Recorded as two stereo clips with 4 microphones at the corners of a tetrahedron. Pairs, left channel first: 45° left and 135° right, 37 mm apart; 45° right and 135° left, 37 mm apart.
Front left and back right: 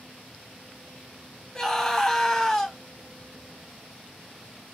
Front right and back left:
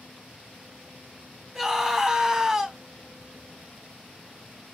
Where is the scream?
90° left, 1.2 m.